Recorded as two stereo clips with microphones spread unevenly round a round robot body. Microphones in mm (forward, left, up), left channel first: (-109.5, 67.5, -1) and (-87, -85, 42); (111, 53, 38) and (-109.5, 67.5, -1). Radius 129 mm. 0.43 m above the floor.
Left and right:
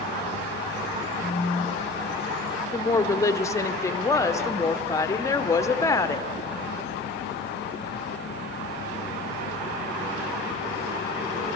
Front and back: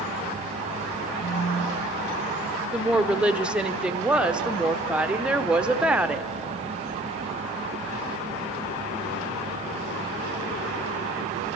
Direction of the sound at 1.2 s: 25° left.